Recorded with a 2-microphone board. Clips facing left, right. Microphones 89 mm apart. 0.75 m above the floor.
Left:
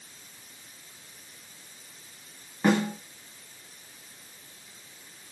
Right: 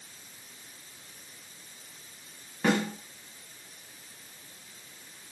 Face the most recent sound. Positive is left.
turn(degrees=10)  # may be behind; listen again after turning